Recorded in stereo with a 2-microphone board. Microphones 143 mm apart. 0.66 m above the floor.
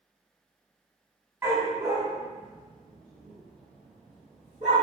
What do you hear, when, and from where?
1.4 s a dog barking: 15° right (ahead or behind), 1.0 m; by 4.8 s 50° right (ahead or behind), 1.5 m